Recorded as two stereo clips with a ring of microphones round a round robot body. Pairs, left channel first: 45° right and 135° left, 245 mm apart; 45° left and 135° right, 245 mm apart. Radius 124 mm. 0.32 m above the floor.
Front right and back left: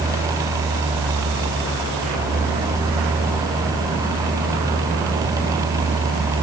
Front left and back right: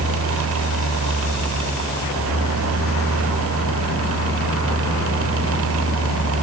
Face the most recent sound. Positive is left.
No sound to turn to.